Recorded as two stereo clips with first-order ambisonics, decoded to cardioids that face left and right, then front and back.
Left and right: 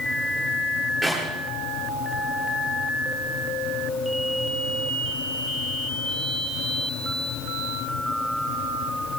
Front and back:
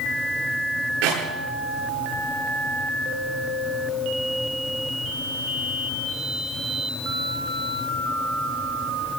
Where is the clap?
170° right, 9.5 m.